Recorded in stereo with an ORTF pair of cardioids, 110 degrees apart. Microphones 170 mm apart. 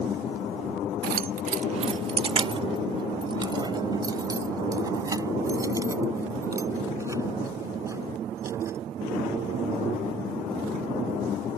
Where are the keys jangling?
65° right; by 8.8 s 15° right.